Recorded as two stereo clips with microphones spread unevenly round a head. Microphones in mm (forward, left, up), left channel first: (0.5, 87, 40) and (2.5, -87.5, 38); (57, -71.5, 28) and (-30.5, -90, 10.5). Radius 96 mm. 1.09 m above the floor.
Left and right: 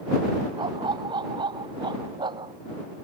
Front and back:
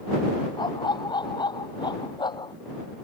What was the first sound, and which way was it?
A dog barking, 20° right.